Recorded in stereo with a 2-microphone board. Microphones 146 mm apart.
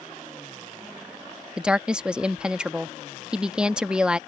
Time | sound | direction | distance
1.6 | a woman speaking | 5° right (ahead or behind) | ?